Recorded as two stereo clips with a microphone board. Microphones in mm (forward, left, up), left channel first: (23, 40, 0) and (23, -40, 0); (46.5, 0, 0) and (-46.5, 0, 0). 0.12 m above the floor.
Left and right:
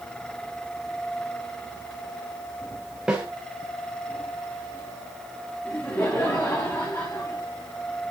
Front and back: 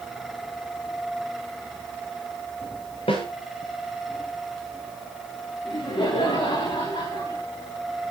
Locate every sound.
3.1 s a snare drum: 5° right, 7.5 m
5.7 s laughter: 30° left, 9 m